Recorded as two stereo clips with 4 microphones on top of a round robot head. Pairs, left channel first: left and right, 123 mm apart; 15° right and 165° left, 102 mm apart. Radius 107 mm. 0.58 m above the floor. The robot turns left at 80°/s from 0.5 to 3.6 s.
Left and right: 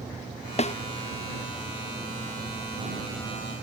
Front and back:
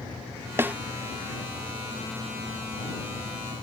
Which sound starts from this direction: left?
A snare drum, at 0.6 s.